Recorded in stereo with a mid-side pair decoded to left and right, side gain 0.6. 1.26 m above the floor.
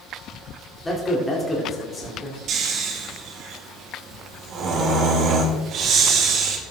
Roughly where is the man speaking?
Ahead.